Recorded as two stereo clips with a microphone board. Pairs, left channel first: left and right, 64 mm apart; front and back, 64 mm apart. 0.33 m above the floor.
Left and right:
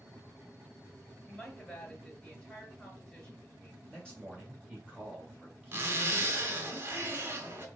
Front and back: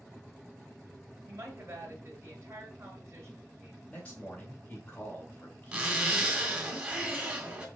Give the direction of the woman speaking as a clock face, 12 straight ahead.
7 o'clock.